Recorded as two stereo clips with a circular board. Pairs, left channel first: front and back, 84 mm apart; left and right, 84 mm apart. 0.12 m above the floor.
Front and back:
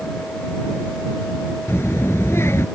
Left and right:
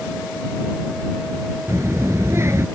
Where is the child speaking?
45° right.